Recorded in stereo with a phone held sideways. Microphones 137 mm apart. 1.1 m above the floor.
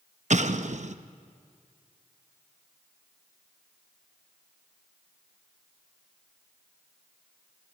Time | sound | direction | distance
0.3 | an explosion | 55° right (ahead or behind) | 0.8 m